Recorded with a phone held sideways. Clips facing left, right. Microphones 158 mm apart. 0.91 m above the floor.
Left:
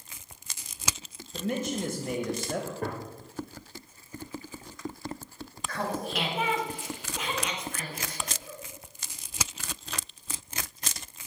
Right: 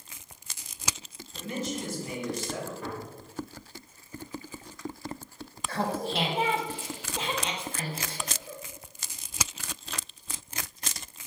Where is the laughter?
30° right (ahead or behind), 0.9 m.